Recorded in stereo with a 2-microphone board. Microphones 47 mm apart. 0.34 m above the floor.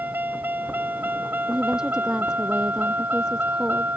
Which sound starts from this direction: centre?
A woman speaking, at 1.5 s.